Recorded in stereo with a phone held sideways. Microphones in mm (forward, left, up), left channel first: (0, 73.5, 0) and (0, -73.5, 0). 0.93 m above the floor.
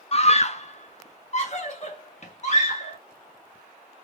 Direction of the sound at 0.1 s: 45° left (ahead or behind).